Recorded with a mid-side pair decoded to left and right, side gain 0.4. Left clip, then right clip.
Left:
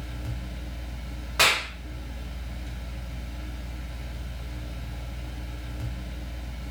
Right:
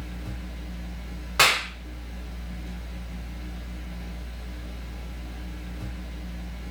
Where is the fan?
65° left, 0.9 m.